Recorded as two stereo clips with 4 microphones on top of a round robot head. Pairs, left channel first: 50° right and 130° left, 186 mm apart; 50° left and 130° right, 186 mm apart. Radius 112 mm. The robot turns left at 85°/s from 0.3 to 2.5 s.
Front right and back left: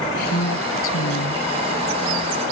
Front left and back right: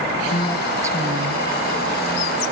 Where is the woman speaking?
5° right; by 1.5 s 105° right.